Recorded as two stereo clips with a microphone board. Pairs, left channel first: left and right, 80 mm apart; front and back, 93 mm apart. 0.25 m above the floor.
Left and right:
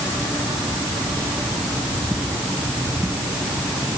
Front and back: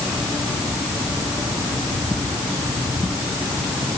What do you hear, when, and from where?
Only background noise.